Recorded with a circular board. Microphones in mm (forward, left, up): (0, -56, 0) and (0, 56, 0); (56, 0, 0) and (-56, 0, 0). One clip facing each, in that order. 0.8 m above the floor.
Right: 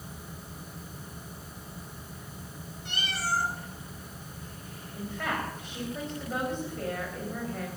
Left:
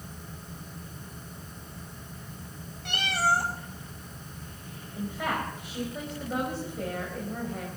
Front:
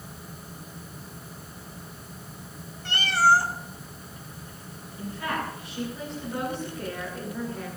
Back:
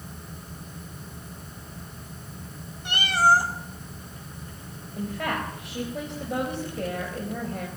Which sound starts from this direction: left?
A cat meowing, at 2.9 s.